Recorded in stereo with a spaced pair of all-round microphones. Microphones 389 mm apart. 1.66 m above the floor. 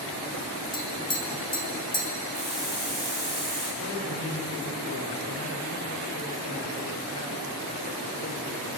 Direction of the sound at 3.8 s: 45° left (ahead or behind).